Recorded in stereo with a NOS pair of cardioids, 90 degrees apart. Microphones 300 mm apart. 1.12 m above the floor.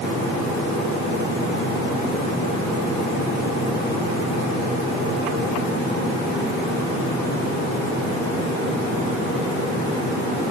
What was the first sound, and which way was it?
Only background noise.